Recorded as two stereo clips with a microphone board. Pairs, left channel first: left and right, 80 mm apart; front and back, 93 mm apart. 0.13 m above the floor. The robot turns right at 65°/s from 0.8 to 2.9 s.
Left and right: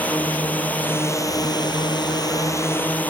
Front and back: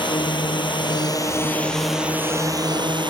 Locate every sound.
0.0 s a drone: 20° left; by 3.1 s 160° left